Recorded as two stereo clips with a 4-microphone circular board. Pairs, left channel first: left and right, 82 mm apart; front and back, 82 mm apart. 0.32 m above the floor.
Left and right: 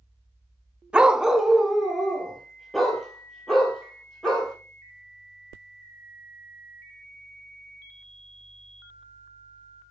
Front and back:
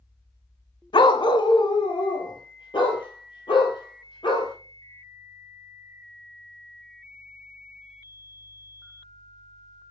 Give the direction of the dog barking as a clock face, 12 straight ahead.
12 o'clock.